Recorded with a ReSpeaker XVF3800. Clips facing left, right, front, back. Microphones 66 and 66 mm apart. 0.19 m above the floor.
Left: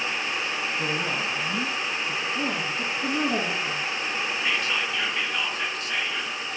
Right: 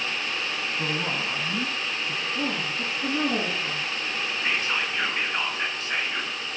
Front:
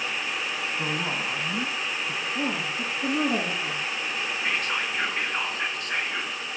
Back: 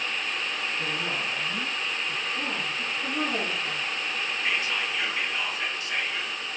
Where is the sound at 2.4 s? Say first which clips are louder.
Left 1 dB, front 2 dB; 10° right, 8 m.